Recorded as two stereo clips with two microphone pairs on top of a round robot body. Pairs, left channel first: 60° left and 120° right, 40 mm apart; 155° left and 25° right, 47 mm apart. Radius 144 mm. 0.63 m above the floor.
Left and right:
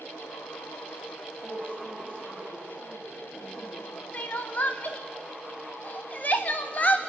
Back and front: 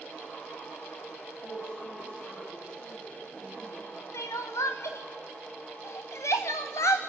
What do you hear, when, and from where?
1.4 s a woman speaking: 95° left, 9.5 m
4.1 s crying: 135° left, 0.5 m